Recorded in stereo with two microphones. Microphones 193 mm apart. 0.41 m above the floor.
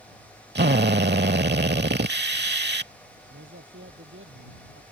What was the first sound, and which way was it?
A drill, 60° right (ahead or behind).